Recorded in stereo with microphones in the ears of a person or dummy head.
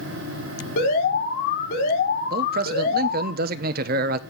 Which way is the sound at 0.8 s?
55° left (ahead or behind).